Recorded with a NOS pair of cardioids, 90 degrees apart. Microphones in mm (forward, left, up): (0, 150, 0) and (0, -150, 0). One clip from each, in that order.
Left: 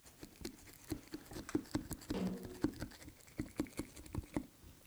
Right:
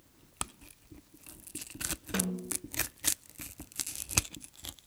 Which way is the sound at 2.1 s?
50° right.